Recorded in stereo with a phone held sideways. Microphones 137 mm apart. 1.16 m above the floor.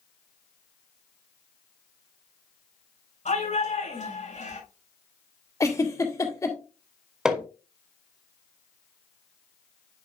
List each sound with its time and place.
3.2 s a shout: 65° left (ahead or behind), 6 m
5.6 s a giggle: 25° left (ahead or behind), 1.8 m
7.2 s hammering: 5° right (ahead or behind), 1.9 m